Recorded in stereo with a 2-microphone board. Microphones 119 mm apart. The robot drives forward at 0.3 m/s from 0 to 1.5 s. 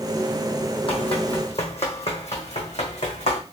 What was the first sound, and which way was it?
Running footsteps, 55° left (ahead or behind).